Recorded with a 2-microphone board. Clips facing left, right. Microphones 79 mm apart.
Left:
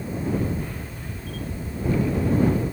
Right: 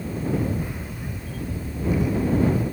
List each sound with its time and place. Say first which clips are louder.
0.3 s a camera shutter: right 1 dB; 10° right (ahead or behind)